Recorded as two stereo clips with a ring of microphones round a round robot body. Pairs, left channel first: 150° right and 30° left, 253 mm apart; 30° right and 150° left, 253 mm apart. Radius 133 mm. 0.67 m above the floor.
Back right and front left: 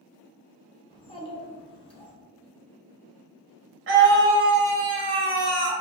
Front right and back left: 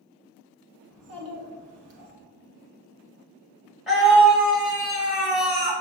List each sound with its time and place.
0.9 s a child speaking: 145° left, 1.0 m
3.9 s a scream: 60° left, 1.1 m